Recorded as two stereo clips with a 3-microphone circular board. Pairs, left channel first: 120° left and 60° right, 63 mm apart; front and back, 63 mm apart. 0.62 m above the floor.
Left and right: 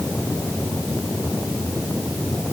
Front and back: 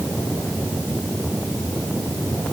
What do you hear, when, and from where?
Only background noise.